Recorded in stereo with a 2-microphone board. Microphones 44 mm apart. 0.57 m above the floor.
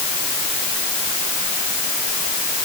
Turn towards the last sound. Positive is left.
No sound to turn to.